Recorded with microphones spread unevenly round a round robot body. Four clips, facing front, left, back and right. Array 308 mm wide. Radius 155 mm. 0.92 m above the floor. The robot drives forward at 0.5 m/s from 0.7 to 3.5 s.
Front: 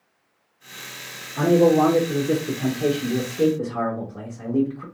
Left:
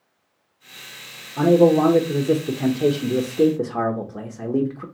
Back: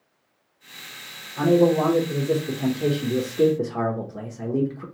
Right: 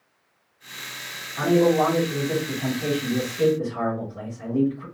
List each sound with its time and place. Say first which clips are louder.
1.4 s a man speaking: left 4 dB, front 2 dB; 55° left, 1.4 m; by 4.8 s 115° left, 1.3 m